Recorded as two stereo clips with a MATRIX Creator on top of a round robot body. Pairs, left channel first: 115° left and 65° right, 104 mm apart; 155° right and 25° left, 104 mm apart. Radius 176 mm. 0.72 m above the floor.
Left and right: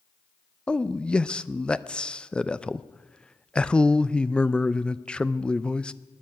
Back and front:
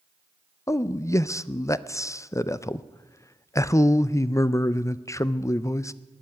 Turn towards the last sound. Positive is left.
turn(degrees=-175)